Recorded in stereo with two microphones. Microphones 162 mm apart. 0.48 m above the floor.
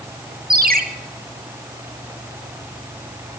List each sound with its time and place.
0.5 s a ringtone: 75° right (ahead or behind), 1.0 m